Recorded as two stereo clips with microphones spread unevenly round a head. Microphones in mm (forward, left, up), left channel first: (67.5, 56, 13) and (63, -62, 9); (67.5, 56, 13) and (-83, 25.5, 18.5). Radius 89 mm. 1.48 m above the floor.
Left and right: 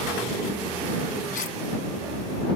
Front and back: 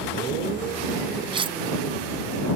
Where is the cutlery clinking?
135° left.